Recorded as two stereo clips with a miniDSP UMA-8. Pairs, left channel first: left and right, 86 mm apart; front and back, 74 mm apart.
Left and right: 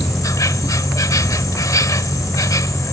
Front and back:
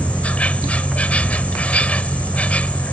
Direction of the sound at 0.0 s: 65° left.